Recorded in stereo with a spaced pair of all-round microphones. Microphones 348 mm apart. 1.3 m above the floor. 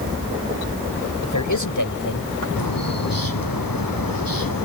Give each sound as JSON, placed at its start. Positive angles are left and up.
{"t": 1.2, "sound": "a man speaking", "side_deg": 60}
{"t": 2.6, "sound": "a bird", "side_deg": 85}